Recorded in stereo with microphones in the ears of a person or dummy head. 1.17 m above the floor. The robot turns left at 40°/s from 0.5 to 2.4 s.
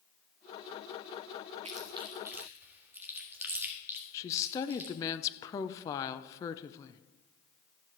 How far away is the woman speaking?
About 0.6 m.